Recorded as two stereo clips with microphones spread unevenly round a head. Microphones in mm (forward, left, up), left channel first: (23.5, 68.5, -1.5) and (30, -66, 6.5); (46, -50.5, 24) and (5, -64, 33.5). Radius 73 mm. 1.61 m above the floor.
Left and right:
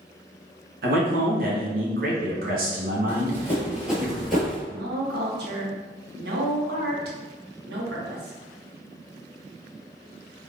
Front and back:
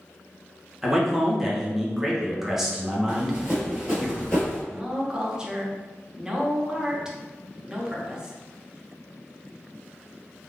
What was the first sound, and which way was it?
A man speaking, 85° right.